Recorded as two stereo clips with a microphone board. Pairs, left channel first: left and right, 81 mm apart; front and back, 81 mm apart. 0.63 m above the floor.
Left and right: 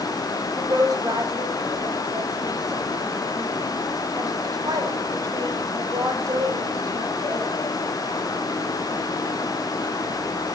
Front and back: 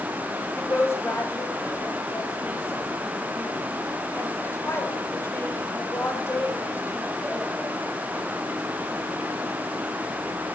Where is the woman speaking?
55° right, 4 m.